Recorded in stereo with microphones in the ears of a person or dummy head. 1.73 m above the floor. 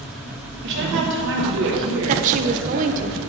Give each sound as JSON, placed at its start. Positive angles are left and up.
{"t": 0.6, "sound": "a woman speaking", "side_deg": -65, "distance_m": 1.6}
{"t": 2.1, "sound": "a woman speaking", "side_deg": -40, "distance_m": 0.5}